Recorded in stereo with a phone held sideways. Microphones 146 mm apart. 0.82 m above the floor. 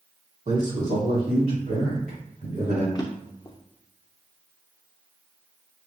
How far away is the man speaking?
About 1.9 m.